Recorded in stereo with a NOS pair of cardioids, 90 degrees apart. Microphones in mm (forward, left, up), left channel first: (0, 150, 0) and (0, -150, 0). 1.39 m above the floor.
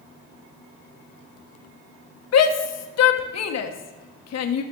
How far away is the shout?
About 1.3 m.